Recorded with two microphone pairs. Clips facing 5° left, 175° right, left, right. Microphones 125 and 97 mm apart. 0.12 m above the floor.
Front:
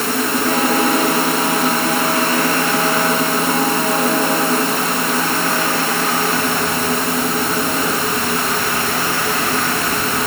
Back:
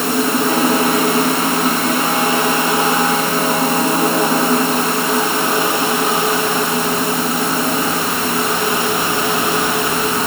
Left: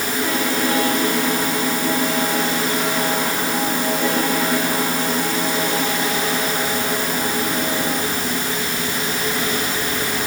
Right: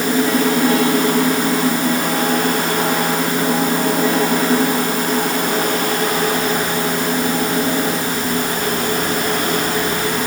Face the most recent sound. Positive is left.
No sound to turn to.